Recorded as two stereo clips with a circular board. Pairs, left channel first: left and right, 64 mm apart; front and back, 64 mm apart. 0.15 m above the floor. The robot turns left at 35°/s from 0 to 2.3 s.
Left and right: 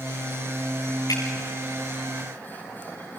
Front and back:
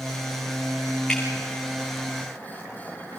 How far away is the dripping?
About 5 m.